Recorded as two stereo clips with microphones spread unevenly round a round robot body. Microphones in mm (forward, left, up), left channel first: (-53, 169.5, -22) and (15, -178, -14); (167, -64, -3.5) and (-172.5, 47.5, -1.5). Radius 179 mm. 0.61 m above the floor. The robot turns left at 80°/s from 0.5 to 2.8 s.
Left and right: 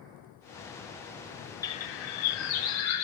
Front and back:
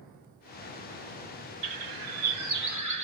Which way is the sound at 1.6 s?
175° right.